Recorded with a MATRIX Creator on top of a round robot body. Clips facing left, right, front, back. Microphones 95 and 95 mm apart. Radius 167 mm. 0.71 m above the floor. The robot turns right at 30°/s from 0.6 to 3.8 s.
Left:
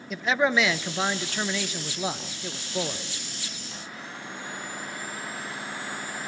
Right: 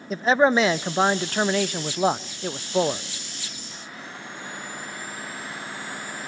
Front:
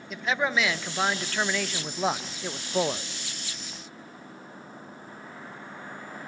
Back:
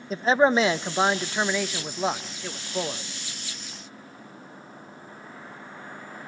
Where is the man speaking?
135° right, 0.7 m; by 3.0 s 60° right, 0.7 m.